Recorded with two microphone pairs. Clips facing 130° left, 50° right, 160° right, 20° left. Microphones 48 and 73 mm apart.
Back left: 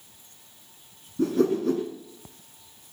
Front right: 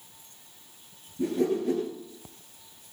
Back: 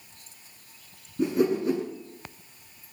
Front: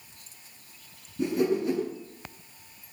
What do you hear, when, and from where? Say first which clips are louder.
1.2 s a whoosh: back left 4 dB, back 2 dB; 130° left, 6.5 m